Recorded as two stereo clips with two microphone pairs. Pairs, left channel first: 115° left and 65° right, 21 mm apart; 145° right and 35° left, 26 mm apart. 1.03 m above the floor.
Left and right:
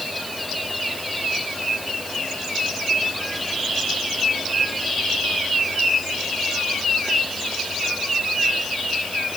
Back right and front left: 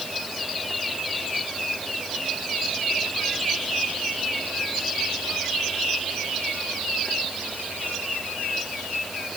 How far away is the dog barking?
No dog barking in this recording.